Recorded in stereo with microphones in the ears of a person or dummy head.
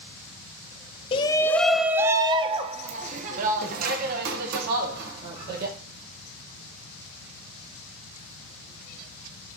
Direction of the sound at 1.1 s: 25° left (ahead or behind).